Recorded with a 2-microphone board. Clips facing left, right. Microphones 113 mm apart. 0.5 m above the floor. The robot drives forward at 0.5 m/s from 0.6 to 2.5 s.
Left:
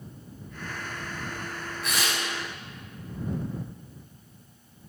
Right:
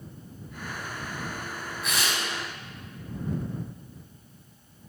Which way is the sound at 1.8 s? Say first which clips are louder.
Even; centre (ahead or behind).